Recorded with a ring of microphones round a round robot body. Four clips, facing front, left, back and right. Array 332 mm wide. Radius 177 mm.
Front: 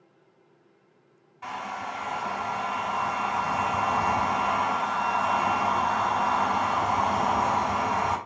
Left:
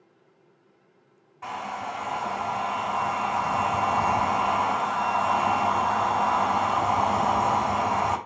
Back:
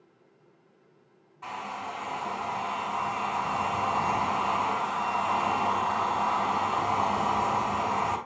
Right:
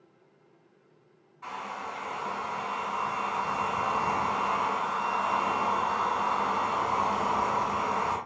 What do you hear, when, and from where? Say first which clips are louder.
1.4 s a hair dryer: left 5 dB, front 2 dB; 80° left, 3.5 m